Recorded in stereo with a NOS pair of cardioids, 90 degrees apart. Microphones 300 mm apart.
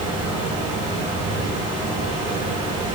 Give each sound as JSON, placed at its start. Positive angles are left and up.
{"t": 0.0, "sound": "a fan", "azimuth_deg": -25, "distance_m": 2.5}